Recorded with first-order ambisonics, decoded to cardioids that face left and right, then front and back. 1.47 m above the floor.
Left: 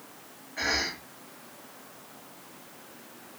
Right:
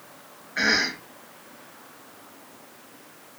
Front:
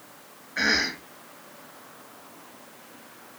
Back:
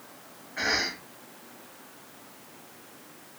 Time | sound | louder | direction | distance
0.6 | a cough | right 6 dB, front 4 dB | 60° right | 2.5 m